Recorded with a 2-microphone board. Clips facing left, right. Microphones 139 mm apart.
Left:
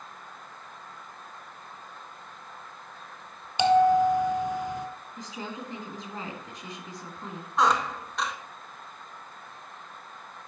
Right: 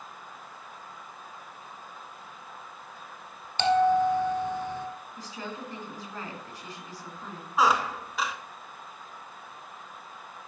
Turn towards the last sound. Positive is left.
turn(degrees=-5)  # may be behind; listen again after turning